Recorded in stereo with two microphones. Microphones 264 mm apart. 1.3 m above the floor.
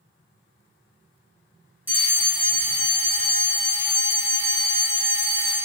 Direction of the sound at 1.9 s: 10° right (ahead or behind).